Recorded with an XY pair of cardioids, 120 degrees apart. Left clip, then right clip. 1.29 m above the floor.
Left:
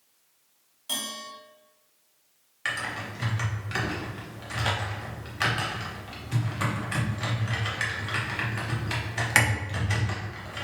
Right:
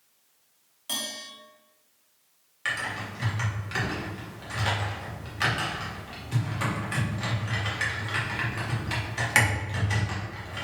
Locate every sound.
0.9 s a bell: 5° right, 1.8 m
2.6 s typing on a keyboard: 15° left, 1.0 m